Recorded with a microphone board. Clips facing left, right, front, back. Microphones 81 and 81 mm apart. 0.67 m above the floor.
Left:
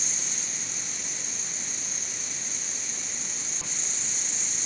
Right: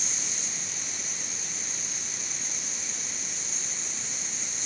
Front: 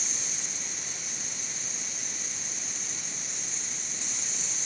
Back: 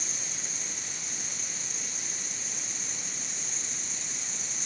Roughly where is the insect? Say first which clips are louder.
Even, front 1 dB; ahead left.